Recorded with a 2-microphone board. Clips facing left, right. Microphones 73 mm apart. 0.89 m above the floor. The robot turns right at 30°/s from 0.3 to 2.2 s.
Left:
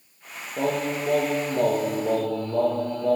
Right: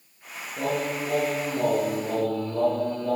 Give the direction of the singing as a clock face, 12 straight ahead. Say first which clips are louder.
Left 2 dB; 10 o'clock.